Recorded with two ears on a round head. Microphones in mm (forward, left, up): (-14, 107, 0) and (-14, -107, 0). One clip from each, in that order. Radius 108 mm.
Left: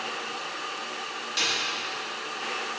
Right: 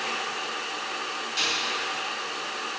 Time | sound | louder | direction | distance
1.4 | a snare drum | left 1 dB | 15° left (ahead or behind) | 2 m